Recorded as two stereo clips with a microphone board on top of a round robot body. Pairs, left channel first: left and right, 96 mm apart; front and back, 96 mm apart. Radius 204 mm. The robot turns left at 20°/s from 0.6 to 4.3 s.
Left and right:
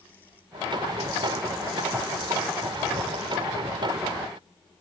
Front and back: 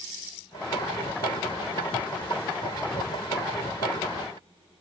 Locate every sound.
Only background noise.